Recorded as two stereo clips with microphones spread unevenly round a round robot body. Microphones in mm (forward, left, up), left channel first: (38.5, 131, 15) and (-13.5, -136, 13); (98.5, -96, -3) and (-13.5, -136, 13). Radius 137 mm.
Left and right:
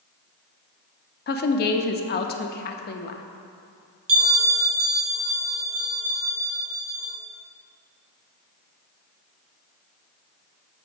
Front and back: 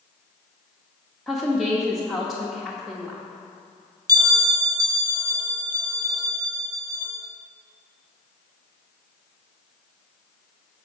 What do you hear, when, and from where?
1.3 s a woman speaking: 100° left, 0.5 m
4.1 s a bell: 105° right, 1.0 m